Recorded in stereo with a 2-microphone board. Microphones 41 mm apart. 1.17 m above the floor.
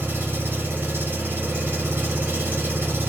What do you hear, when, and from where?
0.0 s an engine running: 55° right (ahead or behind), 1.1 m